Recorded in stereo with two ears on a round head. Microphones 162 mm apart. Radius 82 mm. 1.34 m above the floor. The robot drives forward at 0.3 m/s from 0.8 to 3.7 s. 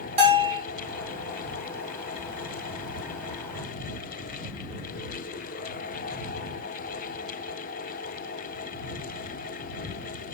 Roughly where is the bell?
Right.